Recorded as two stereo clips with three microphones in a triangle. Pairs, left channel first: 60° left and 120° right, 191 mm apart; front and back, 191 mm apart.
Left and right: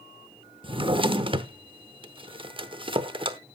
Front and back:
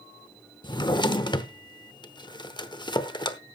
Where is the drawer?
60° right, 0.8 m.